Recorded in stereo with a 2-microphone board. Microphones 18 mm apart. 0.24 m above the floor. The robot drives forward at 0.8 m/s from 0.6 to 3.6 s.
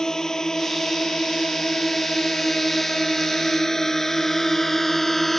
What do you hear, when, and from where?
0.0 s a drone: 30° left (ahead or behind); by 5.4 s 10° left (ahead or behind)